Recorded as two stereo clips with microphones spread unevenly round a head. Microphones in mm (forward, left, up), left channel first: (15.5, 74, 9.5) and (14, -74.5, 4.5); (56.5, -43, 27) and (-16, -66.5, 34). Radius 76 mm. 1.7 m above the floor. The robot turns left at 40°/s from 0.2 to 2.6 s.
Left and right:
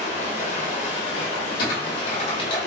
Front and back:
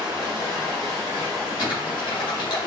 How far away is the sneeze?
No sneeze in this recording.